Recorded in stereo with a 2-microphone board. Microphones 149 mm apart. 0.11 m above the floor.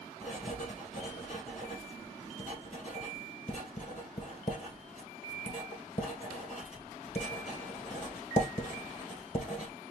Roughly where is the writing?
Left.